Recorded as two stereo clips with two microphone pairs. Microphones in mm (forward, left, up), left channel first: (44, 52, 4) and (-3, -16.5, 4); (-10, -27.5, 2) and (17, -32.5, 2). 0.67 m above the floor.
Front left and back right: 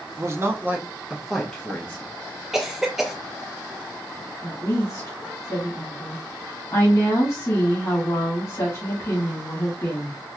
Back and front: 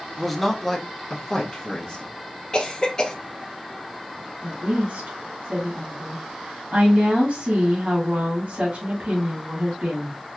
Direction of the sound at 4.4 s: 10° left.